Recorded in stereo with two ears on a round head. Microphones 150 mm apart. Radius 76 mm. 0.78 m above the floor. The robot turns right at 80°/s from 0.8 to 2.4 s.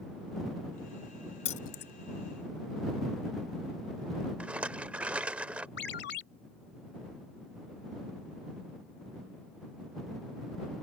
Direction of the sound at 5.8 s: 75° left (ahead or behind).